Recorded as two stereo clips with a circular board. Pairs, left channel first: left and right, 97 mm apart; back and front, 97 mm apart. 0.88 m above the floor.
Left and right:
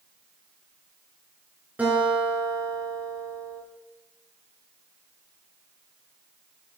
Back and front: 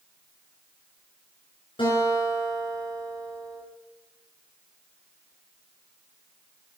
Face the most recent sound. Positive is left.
turn(degrees=-165)